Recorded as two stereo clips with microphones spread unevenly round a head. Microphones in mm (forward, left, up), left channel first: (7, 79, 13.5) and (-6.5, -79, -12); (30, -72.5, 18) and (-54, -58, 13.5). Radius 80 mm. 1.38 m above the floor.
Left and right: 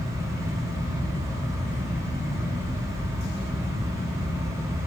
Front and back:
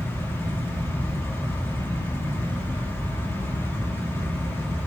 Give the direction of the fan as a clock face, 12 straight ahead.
2 o'clock.